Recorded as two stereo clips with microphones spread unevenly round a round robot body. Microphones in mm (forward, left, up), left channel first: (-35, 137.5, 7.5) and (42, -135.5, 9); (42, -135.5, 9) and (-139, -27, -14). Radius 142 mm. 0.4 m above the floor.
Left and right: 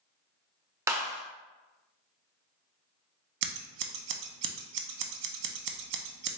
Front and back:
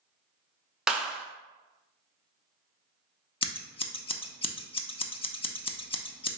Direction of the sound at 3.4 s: 95° right.